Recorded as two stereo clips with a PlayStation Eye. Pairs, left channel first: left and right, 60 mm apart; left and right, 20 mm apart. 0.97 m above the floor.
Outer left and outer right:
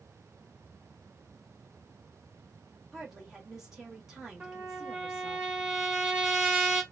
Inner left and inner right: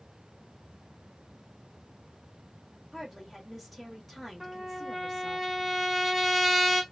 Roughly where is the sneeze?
I don't hear a sneeze.